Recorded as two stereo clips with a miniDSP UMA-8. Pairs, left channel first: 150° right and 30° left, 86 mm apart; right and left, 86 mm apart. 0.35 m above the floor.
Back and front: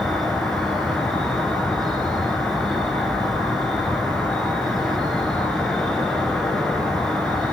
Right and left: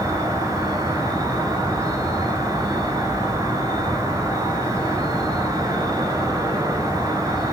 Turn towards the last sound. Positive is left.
turn(degrees=130)